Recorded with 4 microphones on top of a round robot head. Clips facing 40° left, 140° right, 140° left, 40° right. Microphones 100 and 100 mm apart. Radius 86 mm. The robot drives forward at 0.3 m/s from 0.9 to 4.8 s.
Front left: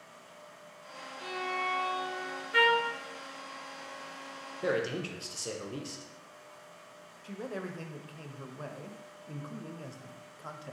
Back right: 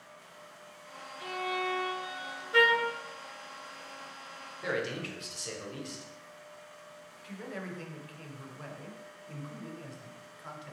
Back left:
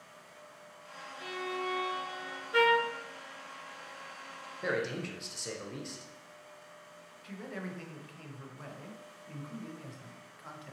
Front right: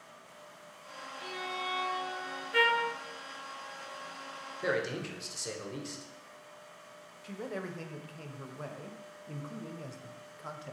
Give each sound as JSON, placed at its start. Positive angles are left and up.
{"t": 1.2, "sound": "a violin", "azimuth_deg": 20, "distance_m": 1.9}
{"t": 2.5, "sound": "a trumpet", "azimuth_deg": 180, "distance_m": 0.7}
{"t": 4.6, "sound": "a man speaking", "azimuth_deg": 40, "distance_m": 0.6}
{"t": 7.2, "sound": "a man speaking", "azimuth_deg": 0, "distance_m": 0.5}